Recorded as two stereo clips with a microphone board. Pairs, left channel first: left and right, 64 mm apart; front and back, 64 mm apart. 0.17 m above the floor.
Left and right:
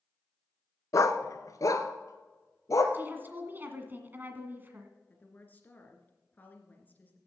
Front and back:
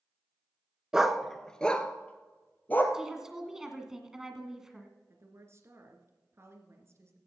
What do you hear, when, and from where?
0.9 s a dog barking: 105° left, 0.7 m; by 2.8 s 60° left, 1.7 m
2.9 s a woman speaking: 105° right, 1.8 m
5.1 s a woman speaking: 145° left, 2.5 m